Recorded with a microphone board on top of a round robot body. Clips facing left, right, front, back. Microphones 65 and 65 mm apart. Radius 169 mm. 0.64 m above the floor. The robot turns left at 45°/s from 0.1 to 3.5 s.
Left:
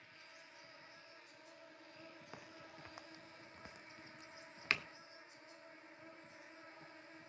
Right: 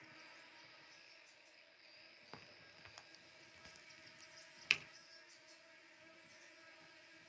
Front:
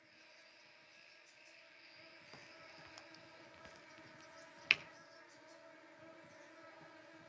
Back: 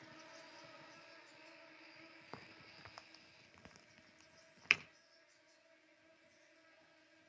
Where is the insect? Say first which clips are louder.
Even, back 7 dB; 170° right, 0.7 m; by 7.3 s 35° left, 0.7 m.